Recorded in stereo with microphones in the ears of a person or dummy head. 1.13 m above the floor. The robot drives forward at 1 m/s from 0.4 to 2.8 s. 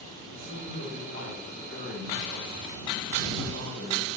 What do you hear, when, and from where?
0.3 s a man speaking: 80° right, 5 m; by 4.0 s 70° right (ahead or behind), 5.5 m